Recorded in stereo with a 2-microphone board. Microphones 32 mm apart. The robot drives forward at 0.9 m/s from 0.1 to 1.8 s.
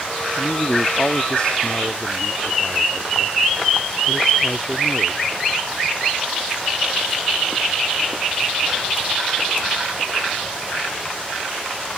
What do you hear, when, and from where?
0.3 s a man speaking: 30° left (ahead or behind); by 5.3 s 25° left (ahead or behind)